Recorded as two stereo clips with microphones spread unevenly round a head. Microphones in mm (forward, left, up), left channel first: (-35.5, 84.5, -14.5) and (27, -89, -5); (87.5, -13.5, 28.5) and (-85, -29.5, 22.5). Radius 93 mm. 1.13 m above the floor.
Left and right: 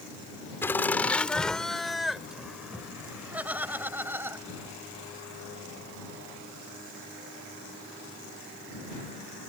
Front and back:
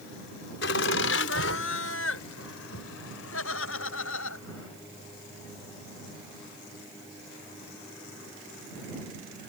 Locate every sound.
0.6 s laughter: 30° left; by 4.7 s 5° left